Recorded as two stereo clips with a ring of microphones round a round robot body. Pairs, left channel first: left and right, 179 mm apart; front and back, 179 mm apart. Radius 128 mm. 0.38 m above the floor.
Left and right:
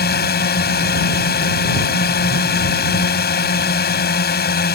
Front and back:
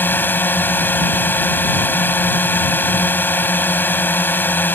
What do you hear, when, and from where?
0.0 s a drone: 80° left